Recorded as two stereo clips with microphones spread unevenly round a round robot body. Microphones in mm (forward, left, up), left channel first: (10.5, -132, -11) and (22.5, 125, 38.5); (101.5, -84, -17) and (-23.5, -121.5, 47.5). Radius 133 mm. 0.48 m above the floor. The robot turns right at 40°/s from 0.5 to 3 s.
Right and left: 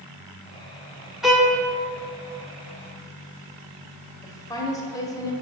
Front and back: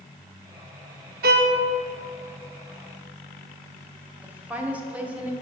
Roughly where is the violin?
Behind.